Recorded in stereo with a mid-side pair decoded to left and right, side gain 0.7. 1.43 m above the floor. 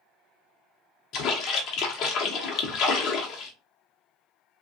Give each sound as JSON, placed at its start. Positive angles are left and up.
{"t": 1.1, "sound": "a splash", "azimuth_deg": 60, "distance_m": 0.7}